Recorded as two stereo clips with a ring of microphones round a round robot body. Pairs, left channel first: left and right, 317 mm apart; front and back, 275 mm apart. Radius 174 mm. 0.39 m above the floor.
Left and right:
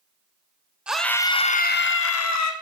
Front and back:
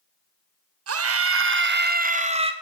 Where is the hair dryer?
No hair dryer in this recording.